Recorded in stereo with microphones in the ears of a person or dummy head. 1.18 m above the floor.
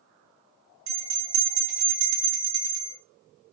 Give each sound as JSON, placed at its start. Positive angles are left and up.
{"t": 0.9, "sound": "a bell", "side_deg": -85, "distance_m": 1.8}